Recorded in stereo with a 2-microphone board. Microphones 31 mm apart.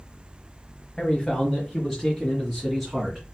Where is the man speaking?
15° left (ahead or behind), 1.5 m; by 3.2 s 5° right (ahead or behind), 3 m.